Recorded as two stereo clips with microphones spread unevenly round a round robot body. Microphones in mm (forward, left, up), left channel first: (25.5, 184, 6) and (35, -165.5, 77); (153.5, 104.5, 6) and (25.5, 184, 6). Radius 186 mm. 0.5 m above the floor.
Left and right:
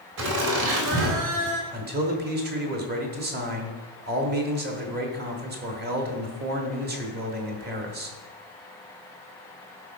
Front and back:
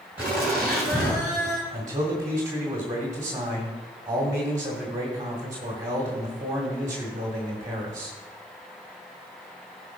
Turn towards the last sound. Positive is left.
turn(degrees=-150)